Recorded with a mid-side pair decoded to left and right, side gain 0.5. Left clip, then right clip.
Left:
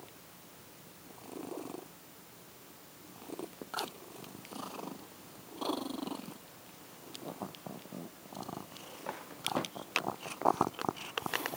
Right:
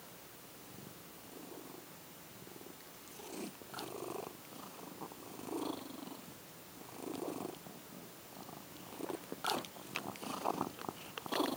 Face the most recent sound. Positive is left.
No sound to turn to.